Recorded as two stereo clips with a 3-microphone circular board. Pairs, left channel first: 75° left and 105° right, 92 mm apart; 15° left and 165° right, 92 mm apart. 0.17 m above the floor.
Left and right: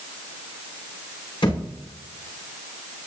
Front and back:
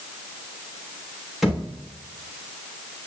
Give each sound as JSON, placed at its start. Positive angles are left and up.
{"t": 1.4, "sound": "a thud", "azimuth_deg": 105, "distance_m": 6.0}